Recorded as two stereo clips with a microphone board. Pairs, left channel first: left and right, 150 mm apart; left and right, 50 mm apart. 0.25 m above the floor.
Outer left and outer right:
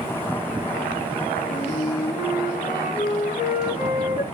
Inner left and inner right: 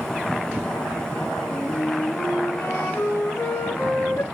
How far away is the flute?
About 3 m.